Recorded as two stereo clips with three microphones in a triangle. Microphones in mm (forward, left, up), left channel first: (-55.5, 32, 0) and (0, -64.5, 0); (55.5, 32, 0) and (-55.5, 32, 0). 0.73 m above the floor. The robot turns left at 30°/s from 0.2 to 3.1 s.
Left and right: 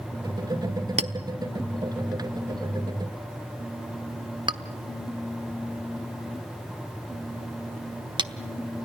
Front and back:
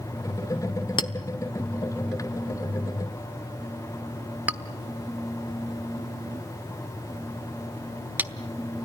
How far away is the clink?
About 1.0 m.